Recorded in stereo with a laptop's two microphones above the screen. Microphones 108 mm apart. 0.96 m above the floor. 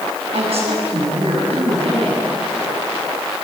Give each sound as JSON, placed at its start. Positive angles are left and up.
{"t": 0.3, "sound": "a woman speaking", "side_deg": -65, "distance_m": 8.5}